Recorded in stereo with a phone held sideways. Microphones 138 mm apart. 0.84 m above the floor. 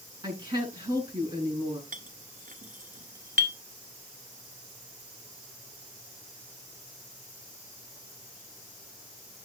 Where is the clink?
75° right (ahead or behind), 1.4 m.